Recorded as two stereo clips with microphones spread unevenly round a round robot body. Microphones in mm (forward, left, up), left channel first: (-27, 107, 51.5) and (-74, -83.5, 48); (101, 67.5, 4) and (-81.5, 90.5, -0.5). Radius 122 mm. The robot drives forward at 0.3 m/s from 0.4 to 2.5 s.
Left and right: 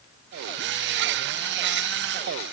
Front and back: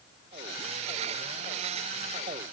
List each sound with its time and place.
Only background noise.